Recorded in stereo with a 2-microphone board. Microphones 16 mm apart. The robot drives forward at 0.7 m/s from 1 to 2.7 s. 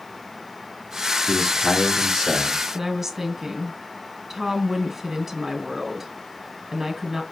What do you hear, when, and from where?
1.3 s a man speaking: 55° left (ahead or behind), 3.5 m; by 2.6 s 45° left (ahead or behind), 4.5 m
2.7 s a woman speaking: 20° right (ahead or behind), 1.5 m